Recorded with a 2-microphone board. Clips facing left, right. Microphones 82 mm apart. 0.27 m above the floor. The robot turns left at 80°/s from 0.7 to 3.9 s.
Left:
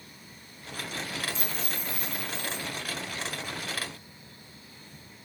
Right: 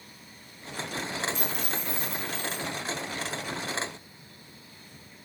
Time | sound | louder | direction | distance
1.3 | a dropped coin | right 3 dB | 45° right | 5.5 m